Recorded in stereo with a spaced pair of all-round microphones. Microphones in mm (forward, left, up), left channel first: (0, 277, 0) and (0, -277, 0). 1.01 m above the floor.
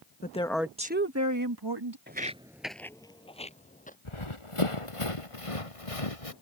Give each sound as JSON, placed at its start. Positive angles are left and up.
{"t": 0.2, "sound": "a woman speaking", "side_deg": 15}
{"t": 2.1, "sound": "footsteps", "side_deg": -20}
{"t": 4.0, "sound": "running footsteps", "side_deg": 55}